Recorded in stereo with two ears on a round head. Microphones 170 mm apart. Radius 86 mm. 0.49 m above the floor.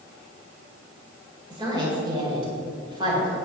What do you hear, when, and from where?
1.5 s a woman speaking: 25° right (ahead or behind), 2.0 m